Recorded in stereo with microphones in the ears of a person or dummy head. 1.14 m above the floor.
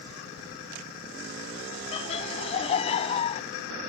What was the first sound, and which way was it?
Laughter, 35° left (ahead or behind).